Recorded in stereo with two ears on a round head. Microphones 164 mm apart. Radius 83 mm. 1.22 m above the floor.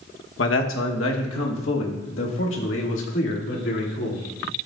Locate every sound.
0.4 s a man speaking: 70° left (ahead or behind), 1.2 m; by 4.2 s 75° left (ahead or behind), 3 m